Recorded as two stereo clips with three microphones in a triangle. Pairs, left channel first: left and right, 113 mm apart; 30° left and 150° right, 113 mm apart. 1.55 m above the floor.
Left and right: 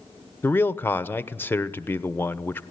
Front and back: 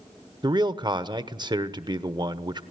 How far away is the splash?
No splash in this recording.